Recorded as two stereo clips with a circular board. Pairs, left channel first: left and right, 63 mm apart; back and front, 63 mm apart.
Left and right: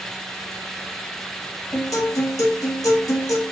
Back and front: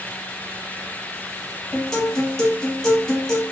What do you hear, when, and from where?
1.7 s a guitar: 95° left, 1.1 m